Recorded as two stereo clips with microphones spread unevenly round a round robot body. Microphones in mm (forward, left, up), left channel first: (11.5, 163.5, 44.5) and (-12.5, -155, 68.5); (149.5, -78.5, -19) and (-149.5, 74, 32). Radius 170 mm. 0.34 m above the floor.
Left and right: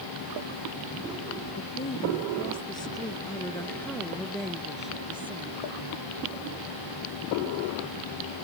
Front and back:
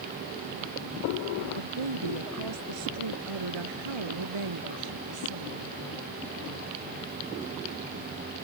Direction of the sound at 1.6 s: 155° left.